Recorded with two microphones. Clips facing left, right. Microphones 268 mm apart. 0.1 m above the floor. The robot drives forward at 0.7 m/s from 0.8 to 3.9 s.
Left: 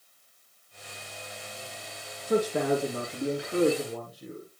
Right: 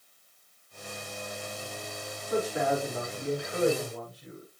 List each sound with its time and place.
2.3 s a man speaking: 70° left (ahead or behind), 3.5 m; by 4.5 s 65° left (ahead or behind), 3.5 m